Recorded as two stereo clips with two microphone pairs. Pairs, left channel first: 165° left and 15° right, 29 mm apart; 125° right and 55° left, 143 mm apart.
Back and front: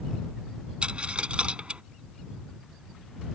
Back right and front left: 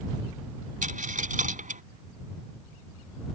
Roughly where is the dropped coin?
Ahead left.